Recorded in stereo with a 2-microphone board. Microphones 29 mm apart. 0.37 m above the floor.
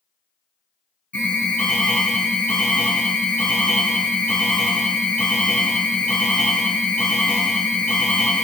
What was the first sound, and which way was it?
An alarm, 50° left (ahead or behind).